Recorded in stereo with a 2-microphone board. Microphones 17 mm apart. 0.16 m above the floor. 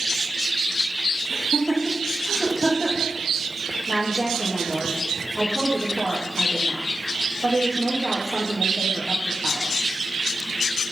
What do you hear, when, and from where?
1.3 s laughter: 10° right (ahead or behind), 5.5 m
3.9 s a woman speaking: 25° right (ahead or behind), 4 m